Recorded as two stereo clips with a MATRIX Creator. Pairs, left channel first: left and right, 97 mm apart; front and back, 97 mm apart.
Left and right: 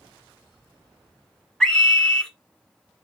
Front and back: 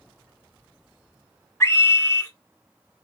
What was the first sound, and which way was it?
A scream, 5° left.